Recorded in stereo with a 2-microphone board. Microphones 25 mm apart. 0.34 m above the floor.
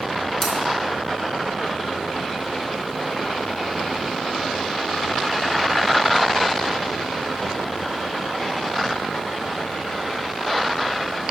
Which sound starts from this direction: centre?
Scissors, at 0.4 s.